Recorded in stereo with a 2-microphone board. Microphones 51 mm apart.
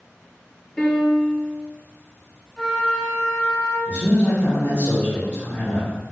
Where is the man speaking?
30° left (ahead or behind), 0.9 m.